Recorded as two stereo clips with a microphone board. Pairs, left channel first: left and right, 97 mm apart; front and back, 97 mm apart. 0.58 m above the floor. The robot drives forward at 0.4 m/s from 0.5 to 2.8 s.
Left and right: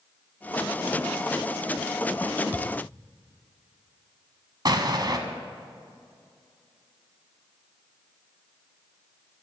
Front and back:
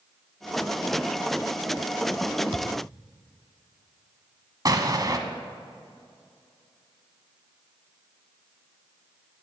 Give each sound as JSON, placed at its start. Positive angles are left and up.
{"t": 2.5, "sound": "a thud", "azimuth_deg": -155, "distance_m": 1.0}
{"t": 4.7, "sound": "an explosion", "azimuth_deg": -130, "distance_m": 1.2}